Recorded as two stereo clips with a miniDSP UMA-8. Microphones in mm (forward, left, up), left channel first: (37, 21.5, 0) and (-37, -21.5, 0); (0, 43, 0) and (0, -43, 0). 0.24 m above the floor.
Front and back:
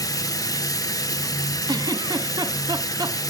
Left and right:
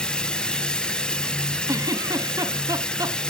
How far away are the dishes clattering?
No dishes clattering in this recording.